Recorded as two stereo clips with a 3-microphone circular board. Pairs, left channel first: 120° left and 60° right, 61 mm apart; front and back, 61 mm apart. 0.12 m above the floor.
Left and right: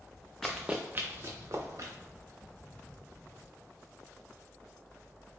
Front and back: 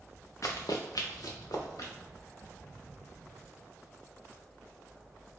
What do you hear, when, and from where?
0.4 s running footsteps: 35° left, 0.6 m; by 1.9 s 25° right, 1.3 m